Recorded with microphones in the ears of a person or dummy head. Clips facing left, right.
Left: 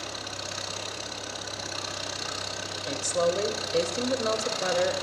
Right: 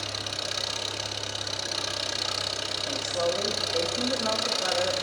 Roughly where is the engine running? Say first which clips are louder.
Right 1 dB; right.